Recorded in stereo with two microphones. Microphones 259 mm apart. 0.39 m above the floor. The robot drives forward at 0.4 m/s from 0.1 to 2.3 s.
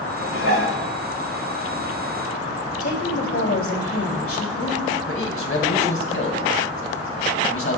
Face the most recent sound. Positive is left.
turn(degrees=55)  # may be behind; listen again after turning